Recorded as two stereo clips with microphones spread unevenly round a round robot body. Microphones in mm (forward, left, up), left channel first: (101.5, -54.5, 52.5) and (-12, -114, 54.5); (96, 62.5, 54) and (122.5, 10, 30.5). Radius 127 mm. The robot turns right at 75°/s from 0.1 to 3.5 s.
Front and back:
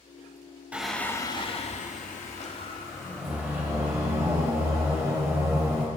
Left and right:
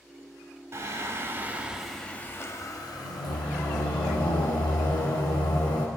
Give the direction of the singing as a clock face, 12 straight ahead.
2 o'clock.